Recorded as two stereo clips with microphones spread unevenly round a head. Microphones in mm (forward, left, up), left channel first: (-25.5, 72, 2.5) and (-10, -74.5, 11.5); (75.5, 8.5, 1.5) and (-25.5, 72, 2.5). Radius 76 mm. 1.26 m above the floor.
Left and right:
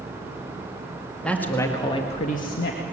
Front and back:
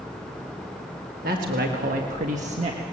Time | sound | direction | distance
1.2 | a man speaking | straight behind | 2.0 m